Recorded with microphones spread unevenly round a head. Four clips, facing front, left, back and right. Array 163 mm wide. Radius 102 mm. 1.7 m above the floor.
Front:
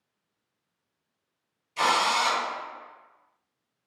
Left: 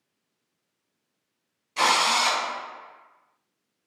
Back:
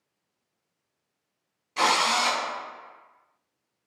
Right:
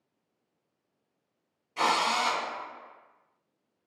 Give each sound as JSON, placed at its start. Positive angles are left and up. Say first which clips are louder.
{"t": 1.8, "sound": "a drill", "louder": "left 4 dB, even", "azimuth_deg": 155, "distance_m": 1.2}